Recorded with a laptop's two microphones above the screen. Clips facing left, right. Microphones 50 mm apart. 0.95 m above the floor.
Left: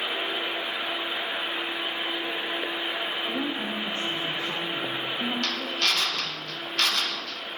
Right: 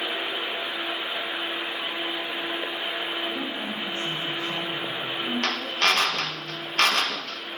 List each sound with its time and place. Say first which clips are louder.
3.3 s a woman speaking: left 1 dB; 55° left (ahead or behind), 2.5 m
5.4 s a drill: right 3 dB; 40° right (ahead or behind), 1.0 m